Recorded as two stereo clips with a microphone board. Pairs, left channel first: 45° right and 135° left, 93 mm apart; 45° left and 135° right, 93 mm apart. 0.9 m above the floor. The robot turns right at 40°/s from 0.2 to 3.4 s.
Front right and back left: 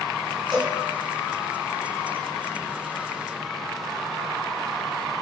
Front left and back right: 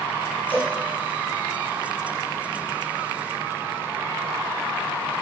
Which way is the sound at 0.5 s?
40° left.